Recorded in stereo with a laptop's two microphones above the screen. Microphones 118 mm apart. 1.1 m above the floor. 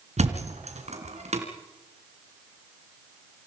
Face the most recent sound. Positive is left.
turn(degrees=-70)  # may be behind; listen again after turning